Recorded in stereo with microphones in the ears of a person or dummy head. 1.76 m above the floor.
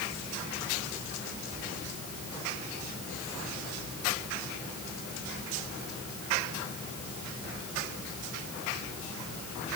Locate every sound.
Only background noise.